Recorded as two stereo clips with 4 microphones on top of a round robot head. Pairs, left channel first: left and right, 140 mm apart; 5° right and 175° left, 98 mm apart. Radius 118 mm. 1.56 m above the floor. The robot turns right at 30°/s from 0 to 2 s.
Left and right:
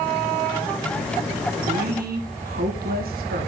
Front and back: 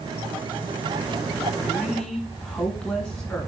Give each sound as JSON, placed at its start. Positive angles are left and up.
{"t": 1.6, "sound": "a woman speaking", "azimuth_deg": -100, "distance_m": 1.9}